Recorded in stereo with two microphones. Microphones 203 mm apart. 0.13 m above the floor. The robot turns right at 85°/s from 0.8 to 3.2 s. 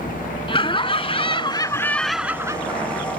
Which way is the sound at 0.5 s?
25° left (ahead or behind).